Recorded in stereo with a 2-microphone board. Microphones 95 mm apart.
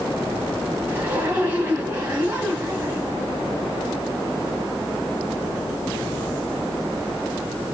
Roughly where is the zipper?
Centre.